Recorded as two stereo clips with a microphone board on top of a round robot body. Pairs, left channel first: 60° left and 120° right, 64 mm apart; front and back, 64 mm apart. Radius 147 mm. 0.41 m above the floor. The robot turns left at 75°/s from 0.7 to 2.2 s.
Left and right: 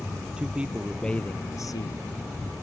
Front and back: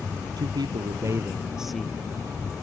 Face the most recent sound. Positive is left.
turn(degrees=55)